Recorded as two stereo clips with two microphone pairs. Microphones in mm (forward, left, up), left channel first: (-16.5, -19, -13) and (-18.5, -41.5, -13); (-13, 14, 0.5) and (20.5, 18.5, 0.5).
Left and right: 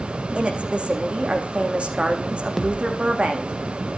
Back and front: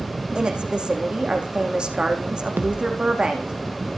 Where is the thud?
5° right, 1.9 m.